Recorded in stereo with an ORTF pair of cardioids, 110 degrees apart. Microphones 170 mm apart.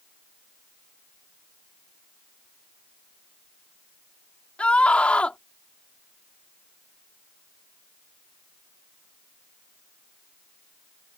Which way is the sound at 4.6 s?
5° left.